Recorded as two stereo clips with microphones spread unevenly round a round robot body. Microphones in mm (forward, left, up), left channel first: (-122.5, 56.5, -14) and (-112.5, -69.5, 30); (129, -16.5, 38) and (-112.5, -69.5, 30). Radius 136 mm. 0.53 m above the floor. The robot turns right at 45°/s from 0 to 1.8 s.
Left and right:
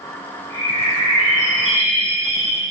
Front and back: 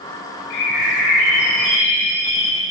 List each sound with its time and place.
0.5 s a bird: 35° left, 1.9 m; by 2.7 s 95° left, 1.9 m